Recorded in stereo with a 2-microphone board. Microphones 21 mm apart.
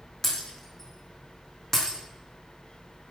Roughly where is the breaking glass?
Left.